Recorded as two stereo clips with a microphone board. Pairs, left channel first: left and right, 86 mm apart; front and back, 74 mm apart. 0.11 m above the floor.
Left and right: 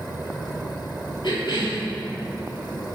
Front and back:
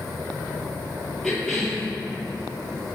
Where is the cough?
85° left, 2.5 m.